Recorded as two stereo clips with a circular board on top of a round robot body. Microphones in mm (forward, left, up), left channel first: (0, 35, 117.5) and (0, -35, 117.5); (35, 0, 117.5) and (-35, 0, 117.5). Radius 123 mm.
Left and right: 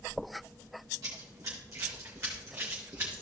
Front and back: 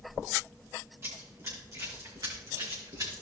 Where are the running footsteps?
125° right, 3 m; by 3.2 s 155° right, 4 m.